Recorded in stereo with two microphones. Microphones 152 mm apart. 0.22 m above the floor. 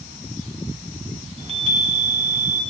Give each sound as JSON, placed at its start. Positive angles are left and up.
{"t": 1.4, "sound": "a chime", "side_deg": -40, "distance_m": 1.7}